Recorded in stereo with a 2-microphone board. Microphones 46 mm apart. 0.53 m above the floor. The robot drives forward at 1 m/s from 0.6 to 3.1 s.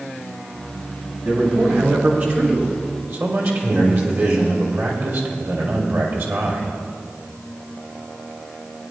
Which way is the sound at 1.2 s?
35° right (ahead or behind).